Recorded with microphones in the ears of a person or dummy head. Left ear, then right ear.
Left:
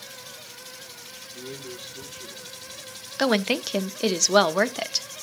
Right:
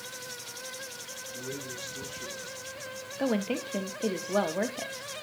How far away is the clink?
I don't hear a clink.